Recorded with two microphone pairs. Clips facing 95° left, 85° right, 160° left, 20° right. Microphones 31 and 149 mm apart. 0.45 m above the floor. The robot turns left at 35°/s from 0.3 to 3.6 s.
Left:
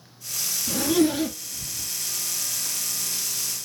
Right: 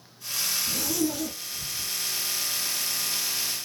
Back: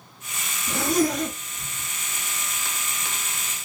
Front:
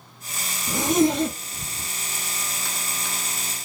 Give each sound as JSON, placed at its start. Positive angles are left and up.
{"t": 0.7, "sound": "a zipper", "azimuth_deg": 55, "distance_m": 1.4}